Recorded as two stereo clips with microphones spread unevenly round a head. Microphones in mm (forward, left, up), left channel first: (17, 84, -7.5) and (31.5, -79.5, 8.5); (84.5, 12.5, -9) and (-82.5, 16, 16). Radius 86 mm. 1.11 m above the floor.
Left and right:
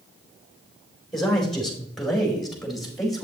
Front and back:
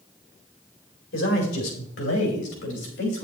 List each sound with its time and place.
1.1 s a man speaking: 5° left, 4 m